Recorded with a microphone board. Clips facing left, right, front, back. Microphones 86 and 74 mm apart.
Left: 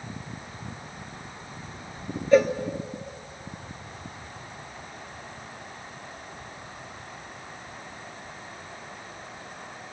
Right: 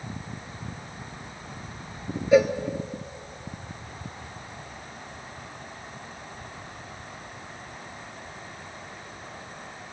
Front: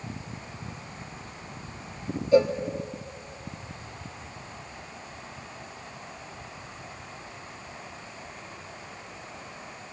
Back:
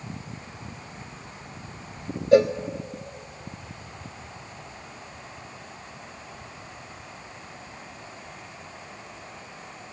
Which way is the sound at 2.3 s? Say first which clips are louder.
Even, back 3 dB; 175° right.